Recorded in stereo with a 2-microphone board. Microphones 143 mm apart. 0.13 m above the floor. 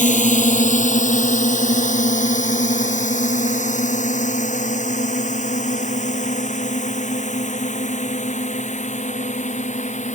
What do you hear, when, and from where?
0.0 s a drone: 60° left (ahead or behind); by 10.2 s 55° left (ahead or behind)